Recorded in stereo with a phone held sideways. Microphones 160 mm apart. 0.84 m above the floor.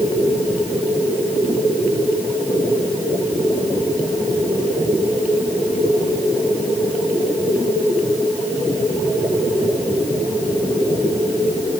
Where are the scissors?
I don't hear scissors.